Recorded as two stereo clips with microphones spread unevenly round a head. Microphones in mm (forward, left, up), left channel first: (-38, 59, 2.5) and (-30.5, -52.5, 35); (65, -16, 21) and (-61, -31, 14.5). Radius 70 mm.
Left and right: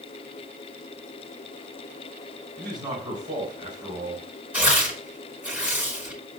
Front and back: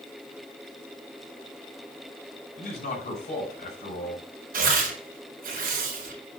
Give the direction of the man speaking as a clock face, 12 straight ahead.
1 o'clock.